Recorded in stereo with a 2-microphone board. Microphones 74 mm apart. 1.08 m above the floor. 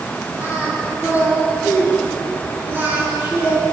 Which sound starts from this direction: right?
Singing, at 0.4 s.